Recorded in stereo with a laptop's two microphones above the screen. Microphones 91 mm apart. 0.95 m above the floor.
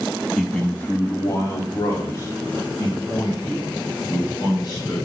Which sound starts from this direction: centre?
A man speaking, at 0.4 s.